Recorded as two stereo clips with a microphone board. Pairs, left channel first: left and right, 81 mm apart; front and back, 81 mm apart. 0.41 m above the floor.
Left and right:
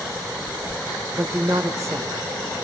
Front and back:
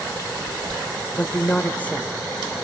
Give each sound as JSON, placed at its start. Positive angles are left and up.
{"t": 1.1, "sound": "a woman speaking", "azimuth_deg": -65, "distance_m": 1.2}